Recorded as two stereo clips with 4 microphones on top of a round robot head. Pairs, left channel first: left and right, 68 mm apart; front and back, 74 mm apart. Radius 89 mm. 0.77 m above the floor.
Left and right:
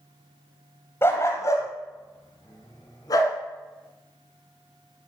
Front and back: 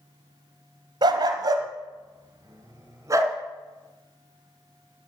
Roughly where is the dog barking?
Behind left.